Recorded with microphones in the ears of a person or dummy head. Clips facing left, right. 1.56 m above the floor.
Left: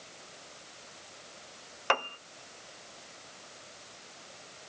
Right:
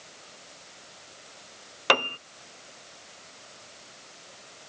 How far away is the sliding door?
I don't hear a sliding door.